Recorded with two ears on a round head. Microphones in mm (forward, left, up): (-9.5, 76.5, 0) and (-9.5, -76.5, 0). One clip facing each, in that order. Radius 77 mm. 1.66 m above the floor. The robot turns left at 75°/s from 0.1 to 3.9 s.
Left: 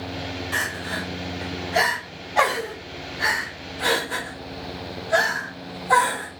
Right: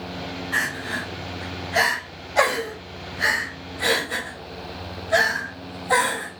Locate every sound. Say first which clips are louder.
0.5 s crying: even; 45° left (ahead or behind), 1.3 m; by 6.3 s 5° right (ahead or behind), 1.3 m